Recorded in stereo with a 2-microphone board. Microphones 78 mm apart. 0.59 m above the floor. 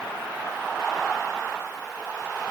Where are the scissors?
I don't hear scissors.